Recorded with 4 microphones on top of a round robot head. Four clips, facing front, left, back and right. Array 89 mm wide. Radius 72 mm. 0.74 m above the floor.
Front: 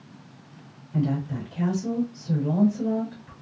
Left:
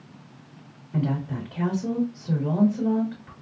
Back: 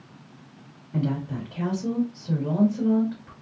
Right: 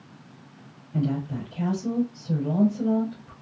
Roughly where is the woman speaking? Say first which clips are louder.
Even, front 1 dB; behind left.